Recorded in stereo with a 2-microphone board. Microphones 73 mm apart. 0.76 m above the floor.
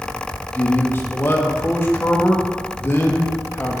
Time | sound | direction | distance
0.5 | a man speaking | 30° left (ahead or behind) | 1.1 m